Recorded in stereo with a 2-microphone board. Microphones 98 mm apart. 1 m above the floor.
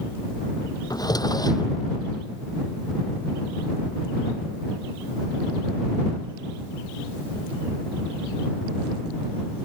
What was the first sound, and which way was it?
A drawer, 40° left (ahead or behind).